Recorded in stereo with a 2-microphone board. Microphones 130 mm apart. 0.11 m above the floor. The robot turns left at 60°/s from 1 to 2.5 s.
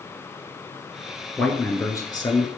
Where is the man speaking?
170° left, 1.3 m; by 2.5 s 105° left, 1.3 m.